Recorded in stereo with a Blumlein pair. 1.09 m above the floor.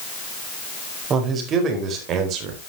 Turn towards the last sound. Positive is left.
turn(degrees=-40)